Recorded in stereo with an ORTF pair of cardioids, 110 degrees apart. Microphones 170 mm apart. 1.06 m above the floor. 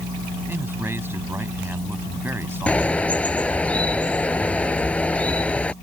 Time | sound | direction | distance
0.5 | a man speaking | 15° right | ?
2.7 | a bird | 10° left | ?